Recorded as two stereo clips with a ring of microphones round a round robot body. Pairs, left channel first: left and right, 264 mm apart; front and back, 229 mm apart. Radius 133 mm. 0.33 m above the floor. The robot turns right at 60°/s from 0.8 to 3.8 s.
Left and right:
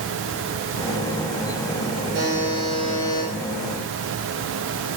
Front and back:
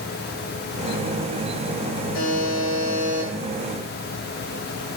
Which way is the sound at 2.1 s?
45° right.